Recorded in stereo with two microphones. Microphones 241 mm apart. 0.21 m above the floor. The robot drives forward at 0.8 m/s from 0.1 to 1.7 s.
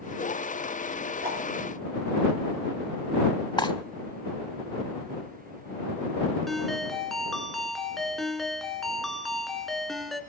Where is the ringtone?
Centre (ahead or behind), 1.6 m.